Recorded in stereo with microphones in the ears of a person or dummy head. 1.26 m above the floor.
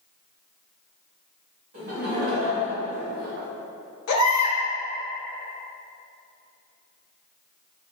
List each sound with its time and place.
1.7 s laughter: 55° right (ahead or behind), 1.8 m; by 3.5 s 70° right (ahead or behind), 0.6 m
4.1 s a baby crying: 90° left, 0.9 m